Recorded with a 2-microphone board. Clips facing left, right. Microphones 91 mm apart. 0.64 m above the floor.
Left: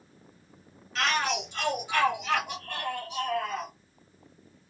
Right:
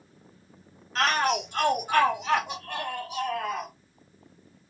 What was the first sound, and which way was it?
A shout, 40° right (ahead or behind).